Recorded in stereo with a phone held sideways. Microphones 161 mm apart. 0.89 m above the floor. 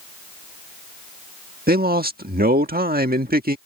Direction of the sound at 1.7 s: 65° right (ahead or behind).